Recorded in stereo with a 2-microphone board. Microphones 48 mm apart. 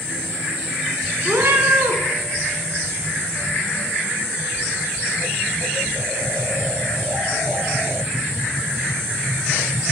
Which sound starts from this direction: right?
A cat meowing, at 1.2 s.